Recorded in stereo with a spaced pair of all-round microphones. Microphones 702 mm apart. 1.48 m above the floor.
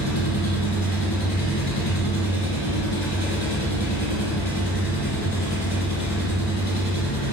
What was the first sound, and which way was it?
An engine running, 70° left (ahead or behind).